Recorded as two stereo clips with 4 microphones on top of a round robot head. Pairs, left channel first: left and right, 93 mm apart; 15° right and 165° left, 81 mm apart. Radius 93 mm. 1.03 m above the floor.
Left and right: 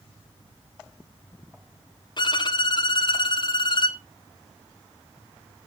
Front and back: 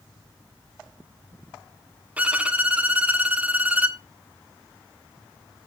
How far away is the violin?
About 0.9 m.